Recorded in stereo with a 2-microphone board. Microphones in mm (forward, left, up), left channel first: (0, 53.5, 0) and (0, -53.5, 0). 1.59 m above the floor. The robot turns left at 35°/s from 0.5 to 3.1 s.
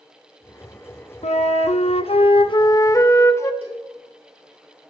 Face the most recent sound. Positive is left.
turn(degrees=-70)  # may be behind; listen again after turning